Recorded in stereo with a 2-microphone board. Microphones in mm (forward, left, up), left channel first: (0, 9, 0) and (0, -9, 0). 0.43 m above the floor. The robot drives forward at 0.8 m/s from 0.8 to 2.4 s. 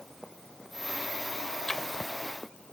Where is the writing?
25° left (ahead or behind); by 2.1 s 15° left (ahead or behind).